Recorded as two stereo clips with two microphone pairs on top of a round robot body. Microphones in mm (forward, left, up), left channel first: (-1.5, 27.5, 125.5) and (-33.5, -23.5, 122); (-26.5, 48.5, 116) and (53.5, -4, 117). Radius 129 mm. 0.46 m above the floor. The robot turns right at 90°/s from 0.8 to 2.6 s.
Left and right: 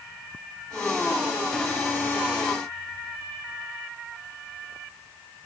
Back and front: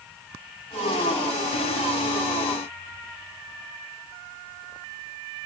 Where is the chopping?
No chopping in this recording.